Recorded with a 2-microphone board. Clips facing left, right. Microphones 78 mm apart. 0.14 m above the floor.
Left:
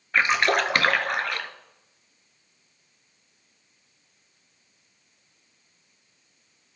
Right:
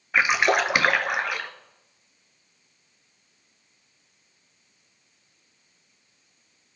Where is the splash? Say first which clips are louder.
Right 1 dB; 10° right (ahead or behind), 0.6 m.